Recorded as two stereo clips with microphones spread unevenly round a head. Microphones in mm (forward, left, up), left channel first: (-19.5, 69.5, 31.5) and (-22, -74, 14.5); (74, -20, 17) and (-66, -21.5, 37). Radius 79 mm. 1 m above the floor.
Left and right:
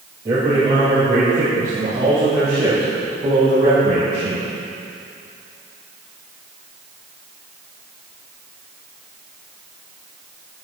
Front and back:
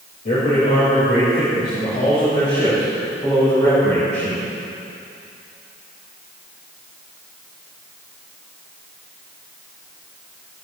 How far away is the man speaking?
About 5 m.